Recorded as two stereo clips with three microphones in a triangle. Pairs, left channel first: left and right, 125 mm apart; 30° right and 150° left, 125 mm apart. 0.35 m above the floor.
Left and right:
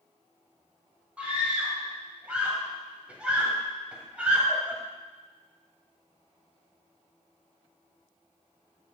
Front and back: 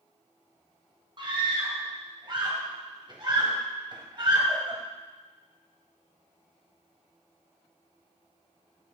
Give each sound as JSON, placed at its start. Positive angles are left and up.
{"t": 1.2, "sound": "a scream", "azimuth_deg": -170, "distance_m": 1.8}